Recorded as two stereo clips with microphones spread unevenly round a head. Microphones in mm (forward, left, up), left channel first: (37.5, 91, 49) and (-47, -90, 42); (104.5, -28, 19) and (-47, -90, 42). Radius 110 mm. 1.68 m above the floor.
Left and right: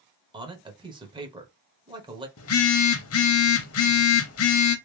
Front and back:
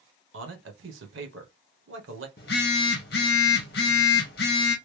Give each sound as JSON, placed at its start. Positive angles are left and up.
{"t": 0.3, "sound": "a man speaking", "azimuth_deg": 175, "distance_m": 1.1}
{"t": 2.4, "sound": "a phone buzzing", "azimuth_deg": 70, "distance_m": 0.8}